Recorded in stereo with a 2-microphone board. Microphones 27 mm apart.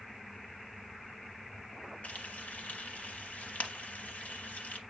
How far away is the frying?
About 1.8 m.